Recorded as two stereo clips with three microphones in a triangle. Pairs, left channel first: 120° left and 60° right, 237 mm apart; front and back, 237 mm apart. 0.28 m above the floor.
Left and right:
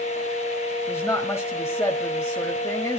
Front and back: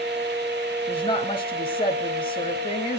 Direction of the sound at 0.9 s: 50° left.